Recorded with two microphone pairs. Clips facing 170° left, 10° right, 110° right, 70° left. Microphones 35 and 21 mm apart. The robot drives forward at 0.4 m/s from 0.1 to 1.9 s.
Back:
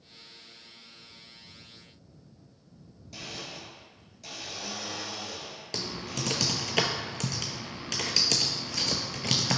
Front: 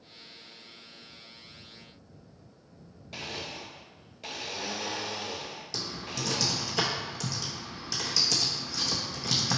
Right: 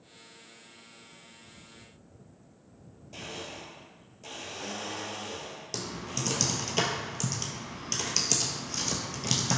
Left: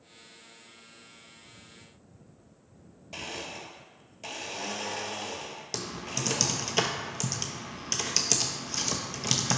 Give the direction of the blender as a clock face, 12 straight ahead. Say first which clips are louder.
Front 3 dB, left 2 dB; 11 o'clock.